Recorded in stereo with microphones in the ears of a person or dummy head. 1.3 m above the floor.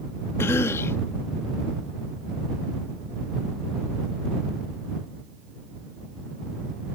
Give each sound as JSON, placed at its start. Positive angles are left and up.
{"t": 0.4, "sound": "a cough", "side_deg": 15}